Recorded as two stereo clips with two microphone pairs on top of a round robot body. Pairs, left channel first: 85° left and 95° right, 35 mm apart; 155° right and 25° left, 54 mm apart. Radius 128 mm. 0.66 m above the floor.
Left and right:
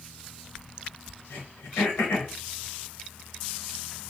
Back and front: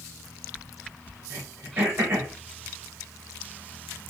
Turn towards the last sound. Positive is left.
turn(degrees=70)